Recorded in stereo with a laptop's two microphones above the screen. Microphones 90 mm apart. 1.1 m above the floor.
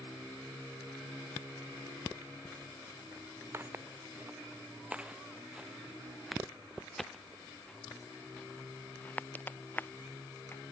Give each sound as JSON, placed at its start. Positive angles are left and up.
{"t": 3.5, "sound": "footsteps", "side_deg": -25}